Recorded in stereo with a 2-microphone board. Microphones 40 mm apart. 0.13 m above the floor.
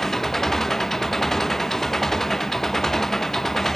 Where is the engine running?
10° left (ahead or behind).